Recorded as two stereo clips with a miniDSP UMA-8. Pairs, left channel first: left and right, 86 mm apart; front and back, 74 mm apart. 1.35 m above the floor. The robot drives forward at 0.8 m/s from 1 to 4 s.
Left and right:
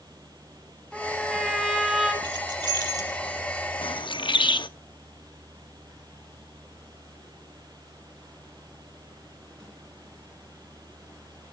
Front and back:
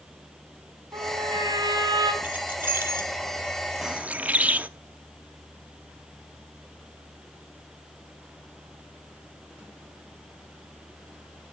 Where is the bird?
100° left, 0.6 m; by 4.7 s 110° left, 0.6 m.